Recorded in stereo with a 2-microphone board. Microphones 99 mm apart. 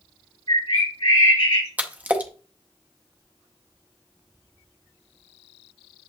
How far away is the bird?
About 3.5 m.